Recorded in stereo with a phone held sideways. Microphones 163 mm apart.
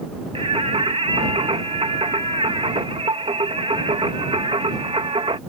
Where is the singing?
35° right (ahead or behind).